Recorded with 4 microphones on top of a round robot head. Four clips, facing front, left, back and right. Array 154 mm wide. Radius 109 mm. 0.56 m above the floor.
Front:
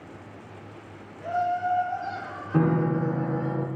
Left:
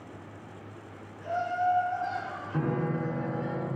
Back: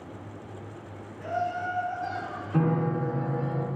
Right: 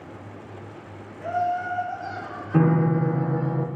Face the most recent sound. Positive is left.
turn(degrees=-65)